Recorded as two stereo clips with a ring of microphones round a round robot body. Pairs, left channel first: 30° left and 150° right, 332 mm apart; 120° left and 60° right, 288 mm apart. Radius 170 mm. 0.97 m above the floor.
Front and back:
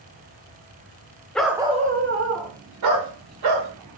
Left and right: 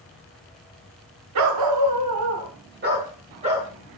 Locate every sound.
1.4 s a dog barking: 55° right, 0.9 m; by 3.7 s 135° right, 1.8 m